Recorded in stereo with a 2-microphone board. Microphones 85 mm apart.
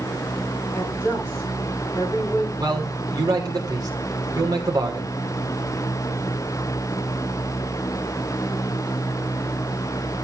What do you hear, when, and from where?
0.7 s a woman speaking: 25° left (ahead or behind), 8.5 m
2.6 s a man speaking: 45° right (ahead or behind), 3.5 m